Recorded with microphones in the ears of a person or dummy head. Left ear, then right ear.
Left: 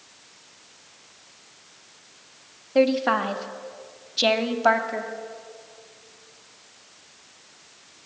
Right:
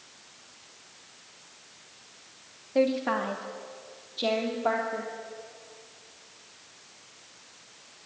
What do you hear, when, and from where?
2.8 s a woman speaking: 15° left (ahead or behind), 1.8 m; by 5.1 s 55° left (ahead or behind), 2.5 m